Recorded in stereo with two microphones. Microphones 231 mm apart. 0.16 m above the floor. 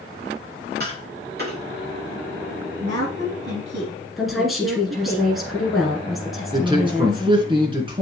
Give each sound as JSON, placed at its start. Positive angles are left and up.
{"t": 0.8, "sound": "tapping", "side_deg": -45, "distance_m": 5.0}
{"t": 2.8, "sound": "a woman speaking", "side_deg": -55, "distance_m": 5.5}
{"t": 4.2, "sound": "a woman speaking", "side_deg": 0, "distance_m": 2.0}
{"t": 6.5, "sound": "a man speaking", "side_deg": -20, "distance_m": 2.0}